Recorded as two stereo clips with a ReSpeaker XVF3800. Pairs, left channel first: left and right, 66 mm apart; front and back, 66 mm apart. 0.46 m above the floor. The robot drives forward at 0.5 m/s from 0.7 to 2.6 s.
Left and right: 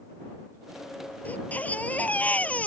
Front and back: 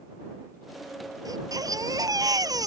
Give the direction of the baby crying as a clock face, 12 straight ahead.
7 o'clock.